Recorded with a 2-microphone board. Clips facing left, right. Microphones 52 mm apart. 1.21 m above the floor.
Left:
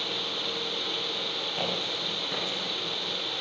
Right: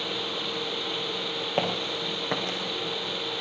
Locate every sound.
1.6 s footsteps: 65° right (ahead or behind), 4 m